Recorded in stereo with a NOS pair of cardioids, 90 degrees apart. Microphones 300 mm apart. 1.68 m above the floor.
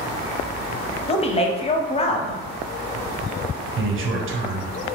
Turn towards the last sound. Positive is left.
turn(degrees=-45)